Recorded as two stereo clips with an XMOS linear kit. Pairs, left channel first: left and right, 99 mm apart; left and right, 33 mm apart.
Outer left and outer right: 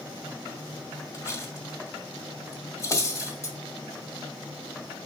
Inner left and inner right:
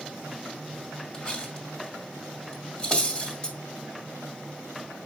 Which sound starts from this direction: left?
Cutlery clinking, at 1.1 s.